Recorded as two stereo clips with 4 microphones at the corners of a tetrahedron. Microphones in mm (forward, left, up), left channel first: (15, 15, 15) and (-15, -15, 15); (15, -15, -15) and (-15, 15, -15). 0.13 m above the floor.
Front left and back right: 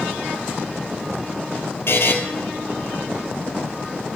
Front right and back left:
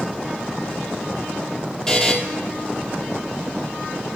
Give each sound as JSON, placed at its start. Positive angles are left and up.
{"t": 1.9, "sound": "a buzzer", "azimuth_deg": 30, "distance_m": 1.1}